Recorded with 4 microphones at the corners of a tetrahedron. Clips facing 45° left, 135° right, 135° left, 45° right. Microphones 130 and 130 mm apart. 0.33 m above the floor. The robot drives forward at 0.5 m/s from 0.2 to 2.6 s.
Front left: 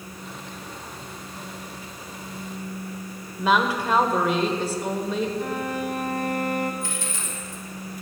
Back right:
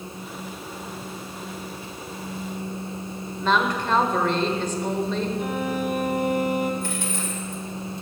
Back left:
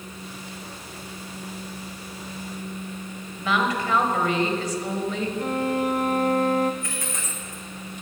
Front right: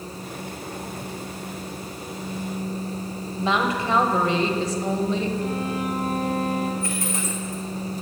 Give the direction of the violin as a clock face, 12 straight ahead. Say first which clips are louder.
Back right 2 dB, back left 2 dB; 7 o'clock.